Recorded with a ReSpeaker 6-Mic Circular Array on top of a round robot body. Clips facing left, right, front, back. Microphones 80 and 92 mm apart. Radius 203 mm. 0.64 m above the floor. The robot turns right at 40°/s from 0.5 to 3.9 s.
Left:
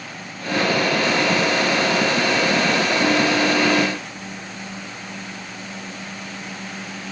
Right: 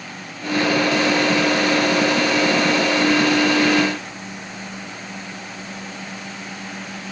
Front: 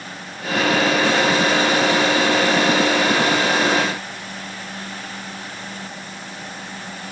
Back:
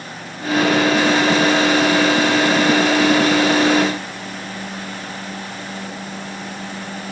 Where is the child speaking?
I don't hear a child speaking.